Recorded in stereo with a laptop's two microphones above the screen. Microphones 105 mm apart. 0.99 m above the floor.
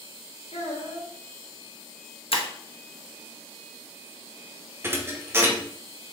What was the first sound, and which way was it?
A child speaking, 80° left.